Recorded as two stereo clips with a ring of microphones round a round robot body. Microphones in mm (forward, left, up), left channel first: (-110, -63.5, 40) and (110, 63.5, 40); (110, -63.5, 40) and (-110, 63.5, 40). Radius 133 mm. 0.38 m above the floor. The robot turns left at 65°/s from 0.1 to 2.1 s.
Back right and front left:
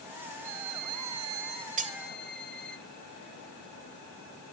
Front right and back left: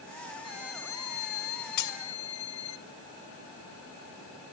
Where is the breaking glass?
30° right, 1.3 m; by 2.0 s 45° right, 1.3 m.